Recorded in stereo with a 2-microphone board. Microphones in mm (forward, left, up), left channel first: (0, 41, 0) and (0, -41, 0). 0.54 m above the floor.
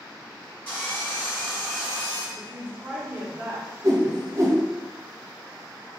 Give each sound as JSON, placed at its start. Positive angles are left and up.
{"t": 0.7, "sound": "sawing", "side_deg": 20, "distance_m": 1.9}
{"t": 2.4, "sound": "a woman speaking", "side_deg": -20, "distance_m": 0.9}
{"t": 3.8, "sound": "a whoosh", "side_deg": -35, "distance_m": 0.8}